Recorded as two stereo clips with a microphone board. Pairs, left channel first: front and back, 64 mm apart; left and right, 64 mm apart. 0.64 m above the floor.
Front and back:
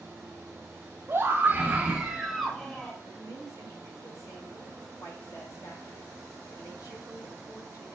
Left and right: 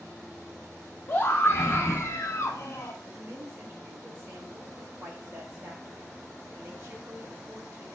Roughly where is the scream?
Behind left.